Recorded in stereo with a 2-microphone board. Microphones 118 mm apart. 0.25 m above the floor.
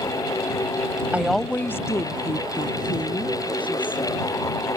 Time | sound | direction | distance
1.1 | a woman speaking | 10° right (ahead or behind) | ?